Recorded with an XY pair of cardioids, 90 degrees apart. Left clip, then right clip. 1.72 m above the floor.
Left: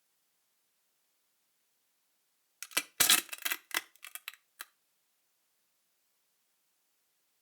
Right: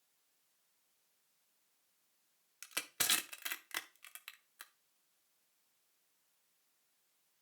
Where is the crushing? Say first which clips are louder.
Left 8 dB; 50° left, 0.6 m.